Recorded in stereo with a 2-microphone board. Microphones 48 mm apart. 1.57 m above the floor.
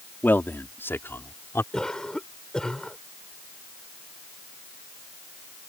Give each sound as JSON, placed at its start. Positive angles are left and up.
{"t": 0.2, "sound": "a man speaking", "side_deg": 50}
{"t": 1.7, "sound": "a cough", "side_deg": 10}